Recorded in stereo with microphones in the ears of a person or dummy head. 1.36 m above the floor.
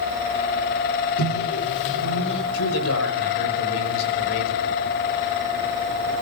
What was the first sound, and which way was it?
A microwave, 65° left (ahead or behind).